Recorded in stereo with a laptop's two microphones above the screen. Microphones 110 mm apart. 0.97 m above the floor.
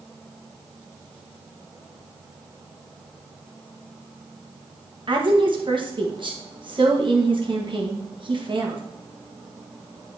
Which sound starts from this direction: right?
A woman speaking, at 5.1 s.